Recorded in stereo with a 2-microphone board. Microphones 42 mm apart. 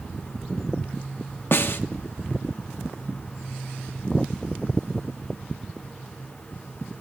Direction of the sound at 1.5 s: 55° left (ahead or behind).